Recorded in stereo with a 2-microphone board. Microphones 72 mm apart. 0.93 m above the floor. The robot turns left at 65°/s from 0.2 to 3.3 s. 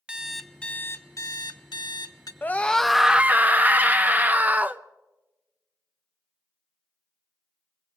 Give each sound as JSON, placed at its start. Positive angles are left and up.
{"t": 0.1, "sound": "an alarm clock", "azimuth_deg": -165, "distance_m": 0.7}
{"t": 2.4, "sound": "a scream", "azimuth_deg": 35, "distance_m": 0.6}